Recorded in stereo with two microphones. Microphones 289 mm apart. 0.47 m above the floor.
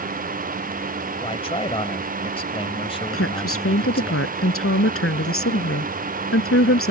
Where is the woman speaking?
55° left (ahead or behind).